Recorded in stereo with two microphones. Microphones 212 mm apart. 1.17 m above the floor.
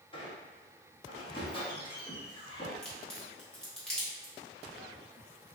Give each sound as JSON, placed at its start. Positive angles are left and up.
{"t": 0.1, "sound": "a squeak", "side_deg": 20, "distance_m": 0.9}
{"t": 2.8, "sound": "a crack", "side_deg": 5, "distance_m": 1.1}